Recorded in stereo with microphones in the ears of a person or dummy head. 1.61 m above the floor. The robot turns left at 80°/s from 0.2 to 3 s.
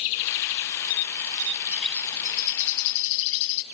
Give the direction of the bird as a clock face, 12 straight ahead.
6 o'clock.